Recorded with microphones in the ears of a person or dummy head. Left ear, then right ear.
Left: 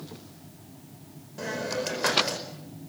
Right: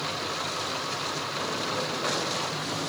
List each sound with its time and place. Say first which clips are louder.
1.4 s a hiss: left 3 dB; 70° left (ahead or behind), 5 m